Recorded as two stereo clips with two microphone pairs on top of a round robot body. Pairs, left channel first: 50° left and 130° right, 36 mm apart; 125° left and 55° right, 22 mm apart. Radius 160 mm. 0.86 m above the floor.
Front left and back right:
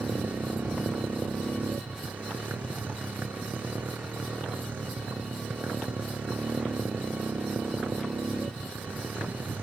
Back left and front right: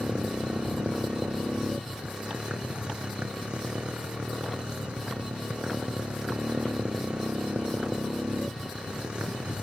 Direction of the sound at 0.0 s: 90° right.